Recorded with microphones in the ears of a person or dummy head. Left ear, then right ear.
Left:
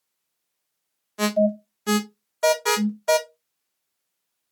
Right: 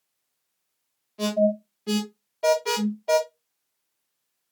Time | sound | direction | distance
1.2 | an alarm | 50° left (ahead or behind) | 1.2 m